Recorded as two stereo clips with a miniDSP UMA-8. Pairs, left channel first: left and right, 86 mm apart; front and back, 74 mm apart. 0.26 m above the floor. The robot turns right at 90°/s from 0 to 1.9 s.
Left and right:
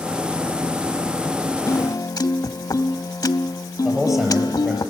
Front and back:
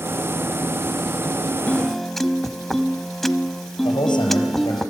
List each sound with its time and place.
1.7 s a piano: 65° left, 0.7 m; by 4.8 s 85° left, 0.7 m
3.9 s a man speaking: 5° right, 5.5 m